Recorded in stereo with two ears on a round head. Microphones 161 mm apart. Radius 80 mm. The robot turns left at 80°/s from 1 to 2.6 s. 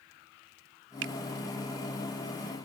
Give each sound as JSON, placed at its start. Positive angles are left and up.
{"t": 1.0, "sound": "a finger snap", "side_deg": -80}